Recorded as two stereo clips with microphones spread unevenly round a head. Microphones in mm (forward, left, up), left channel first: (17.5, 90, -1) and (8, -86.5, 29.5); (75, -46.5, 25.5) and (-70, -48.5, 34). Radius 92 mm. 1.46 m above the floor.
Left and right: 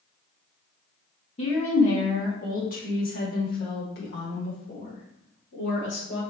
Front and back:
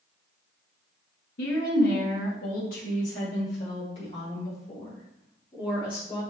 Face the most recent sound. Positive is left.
turn(degrees=65)